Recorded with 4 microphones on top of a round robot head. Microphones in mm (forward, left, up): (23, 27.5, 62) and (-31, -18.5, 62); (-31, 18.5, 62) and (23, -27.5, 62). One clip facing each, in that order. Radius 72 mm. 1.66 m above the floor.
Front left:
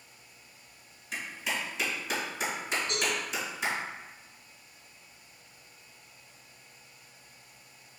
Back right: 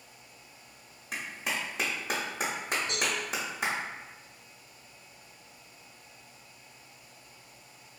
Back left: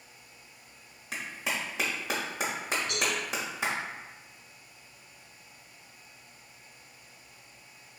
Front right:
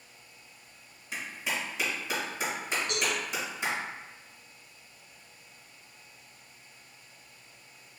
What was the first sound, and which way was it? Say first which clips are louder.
A clap: even, even; 170° left.